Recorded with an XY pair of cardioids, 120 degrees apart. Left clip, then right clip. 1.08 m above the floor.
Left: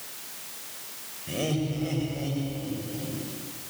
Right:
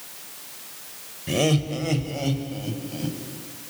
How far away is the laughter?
About 4 m.